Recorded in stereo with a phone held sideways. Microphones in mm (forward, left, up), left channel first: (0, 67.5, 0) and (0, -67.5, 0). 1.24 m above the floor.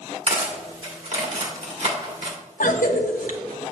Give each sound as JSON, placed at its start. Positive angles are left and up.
{"t": 0.3, "sound": "cutlery clinking", "side_deg": -50, "distance_m": 1.9}
{"t": 2.6, "sound": "a cough", "side_deg": 85, "distance_m": 1.0}